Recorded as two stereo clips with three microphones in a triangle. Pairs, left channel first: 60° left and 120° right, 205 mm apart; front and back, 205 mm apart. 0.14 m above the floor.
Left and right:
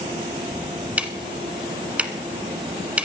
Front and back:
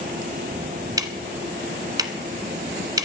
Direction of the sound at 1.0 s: 170° left.